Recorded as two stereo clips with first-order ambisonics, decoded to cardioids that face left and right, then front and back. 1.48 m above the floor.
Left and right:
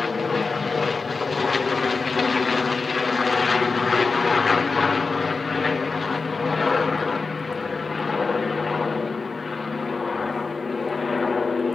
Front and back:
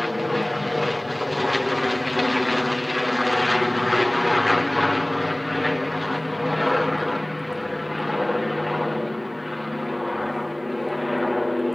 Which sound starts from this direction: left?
An aircraft, at 0.0 s.